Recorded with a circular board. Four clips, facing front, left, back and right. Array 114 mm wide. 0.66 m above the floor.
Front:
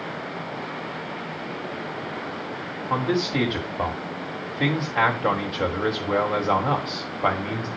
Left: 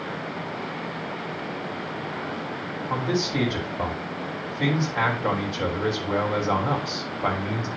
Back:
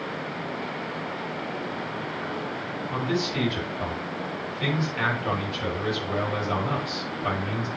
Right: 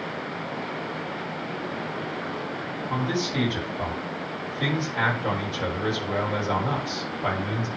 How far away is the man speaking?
About 3 m.